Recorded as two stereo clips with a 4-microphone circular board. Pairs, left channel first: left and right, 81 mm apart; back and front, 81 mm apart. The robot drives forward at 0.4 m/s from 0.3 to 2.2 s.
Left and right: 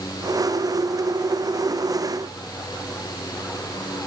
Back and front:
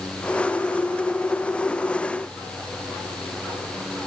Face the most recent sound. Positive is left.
No sound to turn to.